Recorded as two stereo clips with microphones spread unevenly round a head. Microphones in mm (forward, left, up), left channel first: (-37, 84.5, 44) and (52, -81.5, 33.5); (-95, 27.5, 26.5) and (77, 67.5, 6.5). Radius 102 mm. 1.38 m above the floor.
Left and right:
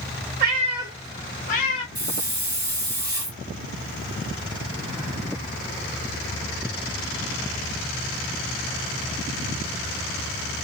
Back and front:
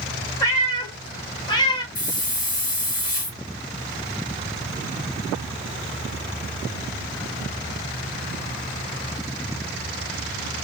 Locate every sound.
0.4 s a cat meowing: 100° right, 1.0 m; by 1.9 s 135° left, 1.1 m
1.9 s a hiss: 130° right, 1.7 m